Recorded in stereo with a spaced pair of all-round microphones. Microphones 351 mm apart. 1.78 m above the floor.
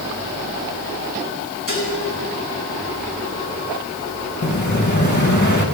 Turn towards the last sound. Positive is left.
turn(degrees=55)  # may be behind; listen again after turning